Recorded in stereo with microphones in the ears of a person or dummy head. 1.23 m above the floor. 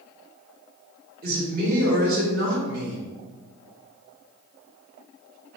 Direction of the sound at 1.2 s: 50° right (ahead or behind).